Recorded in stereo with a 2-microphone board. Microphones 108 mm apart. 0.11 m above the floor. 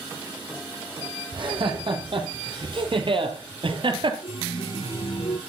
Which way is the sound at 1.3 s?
55° right (ahead or behind).